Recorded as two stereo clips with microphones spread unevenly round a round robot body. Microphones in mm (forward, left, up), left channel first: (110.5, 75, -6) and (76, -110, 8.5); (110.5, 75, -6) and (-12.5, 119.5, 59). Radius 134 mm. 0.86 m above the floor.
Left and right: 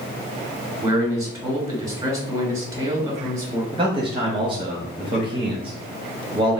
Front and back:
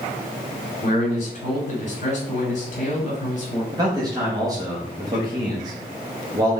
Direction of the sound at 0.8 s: 40° right.